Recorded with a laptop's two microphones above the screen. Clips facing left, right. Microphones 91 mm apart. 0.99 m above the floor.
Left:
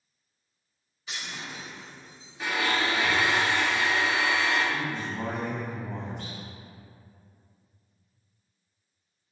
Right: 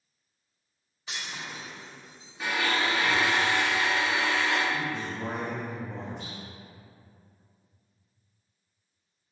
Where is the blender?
Centre (ahead or behind), 1.1 m.